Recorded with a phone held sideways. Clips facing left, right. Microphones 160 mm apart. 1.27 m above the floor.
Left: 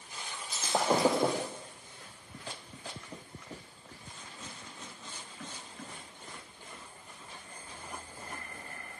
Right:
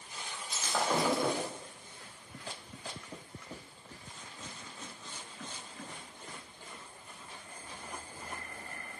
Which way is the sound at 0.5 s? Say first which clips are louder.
Left 3 dB; 35° left (ahead or behind).